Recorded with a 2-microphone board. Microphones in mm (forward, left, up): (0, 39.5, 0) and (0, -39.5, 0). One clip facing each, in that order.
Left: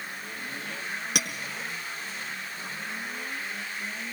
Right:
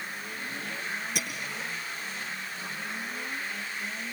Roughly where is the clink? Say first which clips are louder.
Left 1 dB; left.